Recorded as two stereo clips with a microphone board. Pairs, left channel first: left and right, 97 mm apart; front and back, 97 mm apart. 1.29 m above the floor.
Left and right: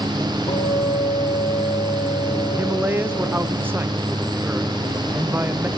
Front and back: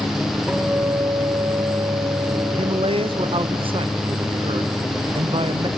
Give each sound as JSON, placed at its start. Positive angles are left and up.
{"t": 0.5, "sound": "a guitar", "azimuth_deg": 100, "distance_m": 6.0}
{"t": 2.5, "sound": "a man speaking", "azimuth_deg": -160, "distance_m": 0.9}